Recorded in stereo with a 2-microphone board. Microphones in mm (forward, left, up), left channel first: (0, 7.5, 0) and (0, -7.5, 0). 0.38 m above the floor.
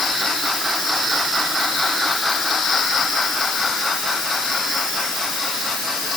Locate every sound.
Only background noise.